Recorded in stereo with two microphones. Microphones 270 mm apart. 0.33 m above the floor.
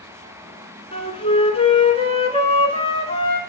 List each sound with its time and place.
0.9 s a flute: 20° left (ahead or behind), 0.9 m